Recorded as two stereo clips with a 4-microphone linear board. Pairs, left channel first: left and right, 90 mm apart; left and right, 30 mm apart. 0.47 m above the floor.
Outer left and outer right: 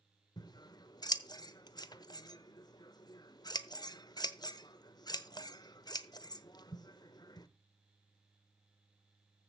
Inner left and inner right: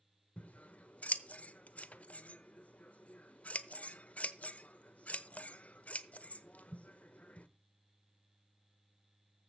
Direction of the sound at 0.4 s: 50° left (ahead or behind).